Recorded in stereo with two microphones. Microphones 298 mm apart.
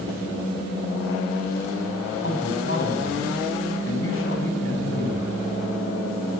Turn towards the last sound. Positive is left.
turn(degrees=40)  # may be behind; listen again after turning